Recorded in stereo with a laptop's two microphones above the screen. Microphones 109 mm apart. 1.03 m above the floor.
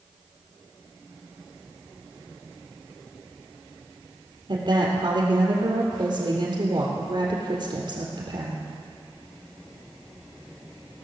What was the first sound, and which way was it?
A woman speaking, 50° right (ahead or behind).